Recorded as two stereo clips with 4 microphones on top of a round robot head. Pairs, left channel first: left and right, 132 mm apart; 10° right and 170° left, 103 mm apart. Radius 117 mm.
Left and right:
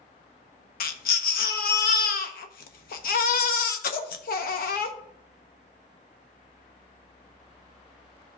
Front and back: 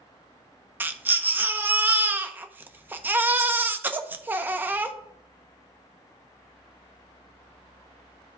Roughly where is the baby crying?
Left.